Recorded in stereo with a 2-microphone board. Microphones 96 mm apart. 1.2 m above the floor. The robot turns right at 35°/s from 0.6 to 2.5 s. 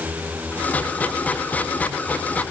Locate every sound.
Only background noise.